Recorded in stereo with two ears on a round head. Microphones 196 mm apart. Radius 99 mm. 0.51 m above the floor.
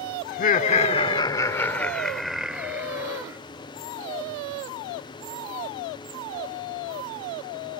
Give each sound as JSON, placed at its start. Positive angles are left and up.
{"t": 0.3, "sound": "laughter", "side_deg": 45}